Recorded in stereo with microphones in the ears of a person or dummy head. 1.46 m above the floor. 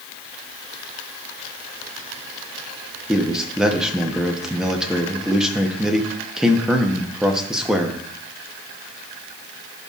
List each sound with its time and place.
3.1 s a man speaking: 10° right (ahead or behind), 1.0 m